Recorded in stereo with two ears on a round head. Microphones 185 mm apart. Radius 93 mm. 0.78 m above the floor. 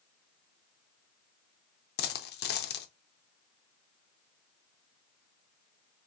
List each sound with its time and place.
2.0 s a dropped coin: 50° left (ahead or behind), 0.6 m